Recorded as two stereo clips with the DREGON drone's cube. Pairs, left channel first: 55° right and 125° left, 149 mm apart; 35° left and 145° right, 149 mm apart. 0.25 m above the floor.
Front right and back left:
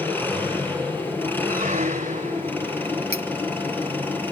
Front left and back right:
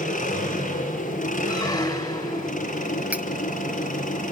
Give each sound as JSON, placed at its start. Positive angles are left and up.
{"t": 0.0, "sound": "an engine running", "azimuth_deg": 20, "distance_m": 5.5}
{"t": 1.5, "sound": "a squeak", "azimuth_deg": 95, "distance_m": 1.1}
{"t": 3.1, "sound": "cutlery clinking", "azimuth_deg": 135, "distance_m": 1.0}